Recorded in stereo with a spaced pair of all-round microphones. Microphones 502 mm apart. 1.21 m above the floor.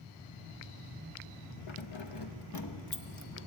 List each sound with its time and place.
1.7 s keys jangling: 70° left (ahead or behind), 0.9 m; by 3.5 s 30° left (ahead or behind), 1.3 m